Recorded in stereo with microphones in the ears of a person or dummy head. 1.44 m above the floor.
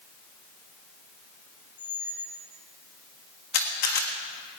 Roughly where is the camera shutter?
Left.